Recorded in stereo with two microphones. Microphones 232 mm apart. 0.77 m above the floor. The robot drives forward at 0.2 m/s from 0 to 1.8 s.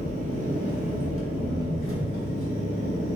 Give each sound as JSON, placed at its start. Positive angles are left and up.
{"t": 0.0, "sound": "an engine running", "side_deg": -80, "distance_m": 0.8}